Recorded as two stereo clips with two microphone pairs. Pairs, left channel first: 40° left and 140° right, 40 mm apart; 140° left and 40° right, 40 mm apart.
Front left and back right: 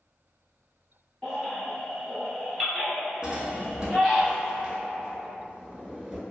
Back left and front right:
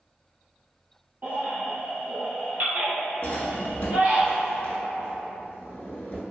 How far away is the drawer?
About 0.6 m.